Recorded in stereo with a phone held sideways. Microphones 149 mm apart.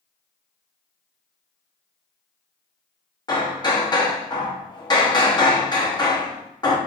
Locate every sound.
3.3 s hammering: 30° left (ahead or behind), 0.8 m